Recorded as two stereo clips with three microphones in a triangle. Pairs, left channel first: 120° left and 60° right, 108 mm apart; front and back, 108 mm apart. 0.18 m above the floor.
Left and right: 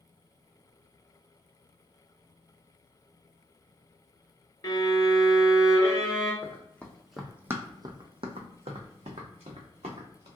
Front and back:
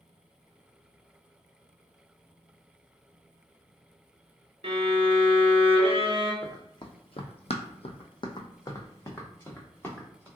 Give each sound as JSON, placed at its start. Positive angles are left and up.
{"t": 4.6, "sound": "a violin", "azimuth_deg": 170, "distance_m": 0.9}
{"t": 6.4, "sound": "running footsteps", "azimuth_deg": 50, "distance_m": 0.8}